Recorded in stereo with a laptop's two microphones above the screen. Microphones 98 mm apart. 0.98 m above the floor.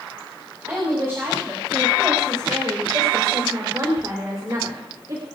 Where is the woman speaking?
25° right (ahead or behind), 6 m; by 5.2 s 45° right (ahead or behind), 2.5 m.